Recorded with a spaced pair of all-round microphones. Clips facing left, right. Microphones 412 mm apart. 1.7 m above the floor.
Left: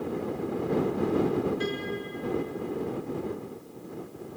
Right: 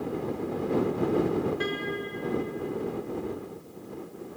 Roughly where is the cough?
I don't hear a cough.